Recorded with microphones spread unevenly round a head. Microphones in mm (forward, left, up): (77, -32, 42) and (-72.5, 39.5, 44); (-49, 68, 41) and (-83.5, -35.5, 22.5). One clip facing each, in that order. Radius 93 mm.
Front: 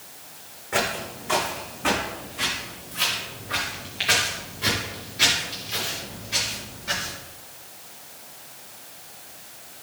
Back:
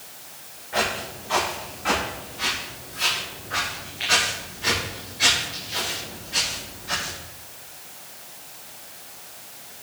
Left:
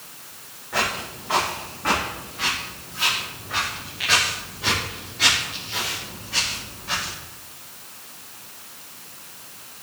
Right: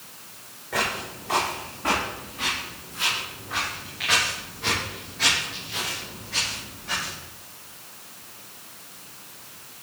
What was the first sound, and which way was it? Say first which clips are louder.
Footsteps: even, left 2 dB; 45° right.